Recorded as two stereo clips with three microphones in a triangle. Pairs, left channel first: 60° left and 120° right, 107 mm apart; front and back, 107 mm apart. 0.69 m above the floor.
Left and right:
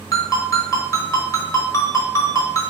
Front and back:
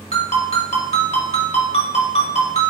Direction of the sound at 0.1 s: Straight ahead.